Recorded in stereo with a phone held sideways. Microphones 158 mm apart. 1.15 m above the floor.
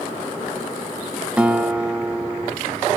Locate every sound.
1.4 s a guitar: 5° right (ahead or behind), 0.6 m